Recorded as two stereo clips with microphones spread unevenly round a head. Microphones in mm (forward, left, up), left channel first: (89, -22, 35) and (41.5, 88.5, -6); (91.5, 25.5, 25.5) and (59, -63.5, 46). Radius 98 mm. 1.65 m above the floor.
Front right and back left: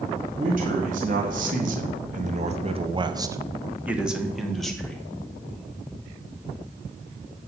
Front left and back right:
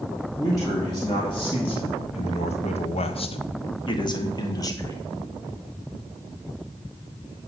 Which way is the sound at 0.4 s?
140° left.